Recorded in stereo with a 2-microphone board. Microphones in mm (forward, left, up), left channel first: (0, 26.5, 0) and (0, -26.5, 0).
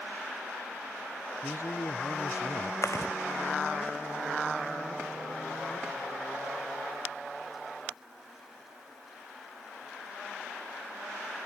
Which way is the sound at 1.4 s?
70° left (ahead or behind).